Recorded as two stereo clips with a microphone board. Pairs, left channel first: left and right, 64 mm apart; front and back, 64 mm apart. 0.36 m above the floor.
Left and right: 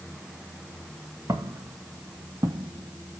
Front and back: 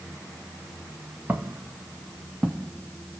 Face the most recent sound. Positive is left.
turn(degrees=-70)